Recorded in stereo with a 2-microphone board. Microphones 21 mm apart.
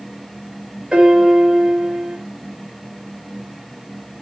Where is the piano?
55° right (ahead or behind), 4 m.